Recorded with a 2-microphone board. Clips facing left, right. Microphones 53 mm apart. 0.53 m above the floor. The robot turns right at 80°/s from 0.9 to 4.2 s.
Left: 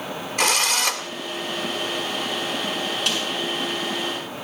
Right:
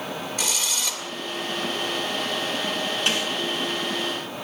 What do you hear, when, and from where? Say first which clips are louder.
0.4 s a drill: left 11 dB; 55° left (ahead or behind), 2.5 m; by 1.1 s 60° left (ahead or behind), 2.5 m
3.1 s a snare drum: right 2 dB; 25° right (ahead or behind), 7 m; by 3.3 s 5° right (ahead or behind), 7 m